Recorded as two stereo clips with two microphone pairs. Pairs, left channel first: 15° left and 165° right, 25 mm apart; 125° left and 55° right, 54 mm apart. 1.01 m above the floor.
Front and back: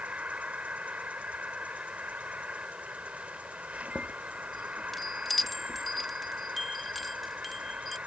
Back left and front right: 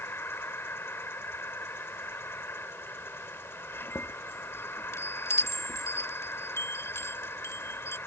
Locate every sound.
0.0 s an insect: 165° left
3.7 s a chime: 95° left